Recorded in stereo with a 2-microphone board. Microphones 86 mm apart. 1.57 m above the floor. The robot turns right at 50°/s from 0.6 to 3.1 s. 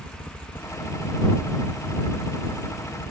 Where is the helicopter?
130° left; by 3.1 s 105° right.